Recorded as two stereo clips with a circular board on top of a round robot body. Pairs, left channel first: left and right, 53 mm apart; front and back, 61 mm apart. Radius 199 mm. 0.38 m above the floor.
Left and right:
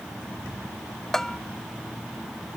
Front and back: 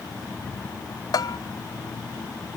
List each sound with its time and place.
1.1 s a bell: 10° left